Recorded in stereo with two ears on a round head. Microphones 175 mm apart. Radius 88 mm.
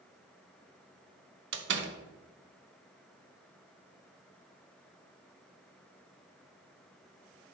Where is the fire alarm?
No fire alarm in this recording.